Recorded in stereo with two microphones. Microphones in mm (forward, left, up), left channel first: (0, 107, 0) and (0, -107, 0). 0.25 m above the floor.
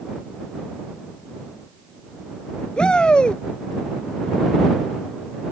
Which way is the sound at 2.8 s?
5° left (ahead or behind).